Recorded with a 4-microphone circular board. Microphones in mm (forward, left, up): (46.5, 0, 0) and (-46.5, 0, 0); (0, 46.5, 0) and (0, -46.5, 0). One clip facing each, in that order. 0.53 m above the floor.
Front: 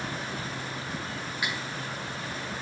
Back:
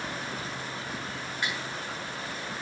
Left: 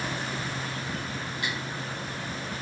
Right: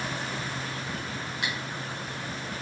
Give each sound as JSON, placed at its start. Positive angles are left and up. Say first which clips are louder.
{"t": 1.4, "sound": "cutlery clinking", "louder": "even, even", "azimuth_deg": -80, "distance_m": 0.9}